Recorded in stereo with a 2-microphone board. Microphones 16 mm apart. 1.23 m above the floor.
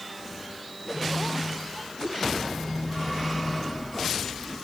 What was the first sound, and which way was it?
A phone buzzing, 35° left (ahead or behind).